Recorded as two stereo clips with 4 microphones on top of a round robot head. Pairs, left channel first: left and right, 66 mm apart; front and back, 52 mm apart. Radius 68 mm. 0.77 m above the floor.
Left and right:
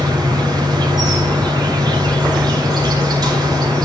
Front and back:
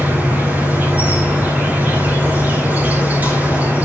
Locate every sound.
0.0 s an insect: 115° right, 2 m